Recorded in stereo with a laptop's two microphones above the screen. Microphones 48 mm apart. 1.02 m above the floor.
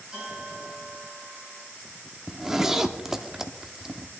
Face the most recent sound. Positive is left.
turn(degrees=-10)  # may be behind; listen again after turning